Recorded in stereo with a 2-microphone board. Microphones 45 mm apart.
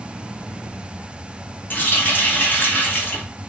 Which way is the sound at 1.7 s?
45° left (ahead or behind).